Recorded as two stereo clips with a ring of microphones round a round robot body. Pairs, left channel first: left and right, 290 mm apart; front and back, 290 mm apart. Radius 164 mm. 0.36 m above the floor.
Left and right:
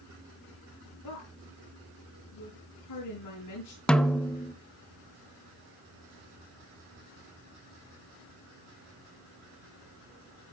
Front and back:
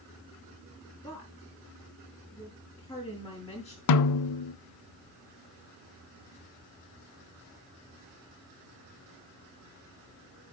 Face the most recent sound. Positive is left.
turn(degrees=5)